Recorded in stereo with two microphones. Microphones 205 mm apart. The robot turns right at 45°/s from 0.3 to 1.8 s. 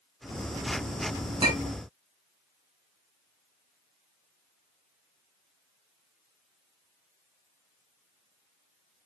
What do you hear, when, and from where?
1.4 s a clink: 20° right (ahead or behind), 1.3 m; by 1.8 s 35° right (ahead or behind), 1.3 m